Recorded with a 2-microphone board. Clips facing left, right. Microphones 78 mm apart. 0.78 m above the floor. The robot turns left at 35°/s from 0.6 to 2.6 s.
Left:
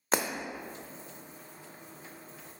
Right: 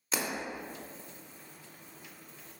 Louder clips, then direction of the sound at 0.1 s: Left 6 dB; 60° left (ahead or behind).